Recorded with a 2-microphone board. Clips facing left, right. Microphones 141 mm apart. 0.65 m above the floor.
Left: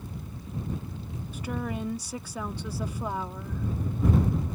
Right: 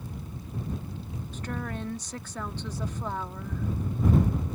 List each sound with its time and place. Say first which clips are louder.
1.3 s a woman speaking: left 3 dB; 10° left (ahead or behind)